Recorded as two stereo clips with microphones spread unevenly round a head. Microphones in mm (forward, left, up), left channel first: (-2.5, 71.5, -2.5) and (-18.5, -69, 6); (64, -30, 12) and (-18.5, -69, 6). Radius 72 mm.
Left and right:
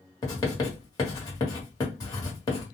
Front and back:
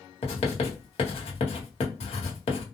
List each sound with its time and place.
0.2 s writing: 15° left, 1.2 m